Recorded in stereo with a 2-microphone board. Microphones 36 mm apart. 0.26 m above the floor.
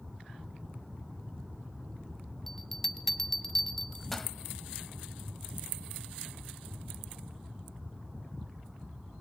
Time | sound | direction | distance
2.5 | a bell | 5° left (ahead or behind) | 1.4 m